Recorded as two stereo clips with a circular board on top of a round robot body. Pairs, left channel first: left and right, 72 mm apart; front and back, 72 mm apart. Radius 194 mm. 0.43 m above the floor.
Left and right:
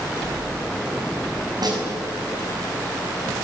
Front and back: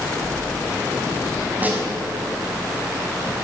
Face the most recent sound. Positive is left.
turn(degrees=-115)